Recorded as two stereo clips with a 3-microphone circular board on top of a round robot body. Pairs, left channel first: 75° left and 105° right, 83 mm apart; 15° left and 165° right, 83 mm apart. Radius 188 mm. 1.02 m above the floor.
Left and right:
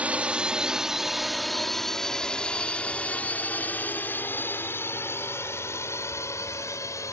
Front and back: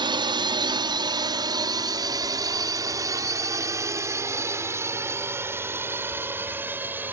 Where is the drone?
Straight behind; by 7.1 s 125° left.